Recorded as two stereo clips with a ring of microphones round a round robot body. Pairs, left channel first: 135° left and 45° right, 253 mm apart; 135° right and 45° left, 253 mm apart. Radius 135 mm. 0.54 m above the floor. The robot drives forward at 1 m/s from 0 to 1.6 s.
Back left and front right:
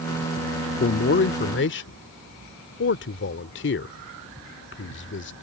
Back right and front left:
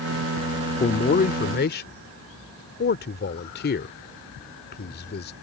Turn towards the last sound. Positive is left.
turn(degrees=175)